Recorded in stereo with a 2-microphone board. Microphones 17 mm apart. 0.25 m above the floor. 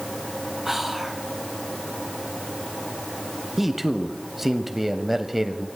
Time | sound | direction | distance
0.7 | whispering | 15° right (ahead or behind) | 4 m
3.6 | a man speaking | 10° right (ahead or behind) | 1.0 m